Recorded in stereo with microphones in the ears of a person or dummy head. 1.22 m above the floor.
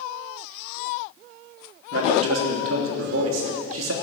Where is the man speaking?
80° right, 3 m.